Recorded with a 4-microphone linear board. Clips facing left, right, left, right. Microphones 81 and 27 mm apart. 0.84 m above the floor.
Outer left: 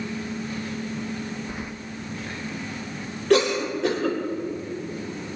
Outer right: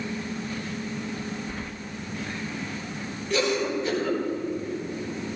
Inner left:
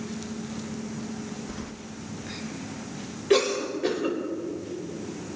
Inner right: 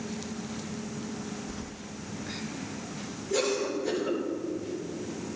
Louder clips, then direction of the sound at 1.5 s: Outer left 1 dB, inner left 2 dB; 10° left (ahead or behind).